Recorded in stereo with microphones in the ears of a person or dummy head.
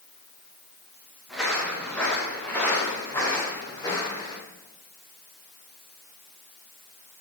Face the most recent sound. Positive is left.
turn(degrees=15)  # may be behind; listen again after turning